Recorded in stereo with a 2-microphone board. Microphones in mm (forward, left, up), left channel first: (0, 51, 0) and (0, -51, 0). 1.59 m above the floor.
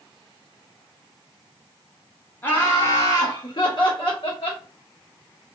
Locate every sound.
2.4 s laughter: 20° left (ahead or behind), 1.1 m; by 4.6 s 65° left (ahead or behind), 1.5 m